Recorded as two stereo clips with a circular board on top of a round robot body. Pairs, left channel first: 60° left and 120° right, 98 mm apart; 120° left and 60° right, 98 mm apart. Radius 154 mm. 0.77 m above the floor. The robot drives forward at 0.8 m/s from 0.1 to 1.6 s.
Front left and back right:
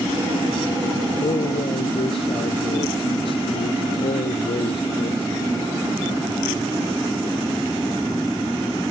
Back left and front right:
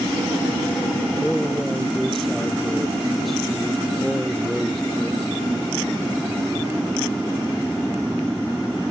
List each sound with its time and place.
1.2 s a man speaking: 30° left